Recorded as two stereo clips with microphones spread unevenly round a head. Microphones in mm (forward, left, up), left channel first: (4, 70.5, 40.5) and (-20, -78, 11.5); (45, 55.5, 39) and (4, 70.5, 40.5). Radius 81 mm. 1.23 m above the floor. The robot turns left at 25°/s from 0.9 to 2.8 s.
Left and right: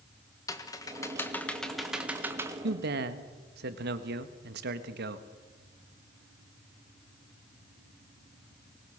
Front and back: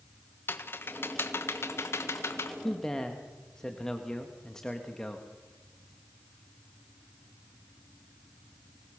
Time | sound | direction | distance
0.5 | typing on a keyboard | 10° left | 1.6 m
2.6 | a man speaking | 100° right | 1.6 m